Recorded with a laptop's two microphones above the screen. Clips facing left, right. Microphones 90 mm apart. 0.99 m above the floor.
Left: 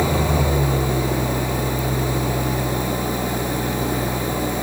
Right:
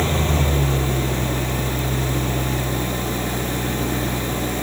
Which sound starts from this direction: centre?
An engine running, at 0.0 s.